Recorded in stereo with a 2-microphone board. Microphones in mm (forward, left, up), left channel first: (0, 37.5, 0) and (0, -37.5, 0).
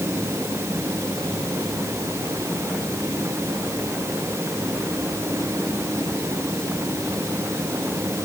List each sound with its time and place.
Only background noise.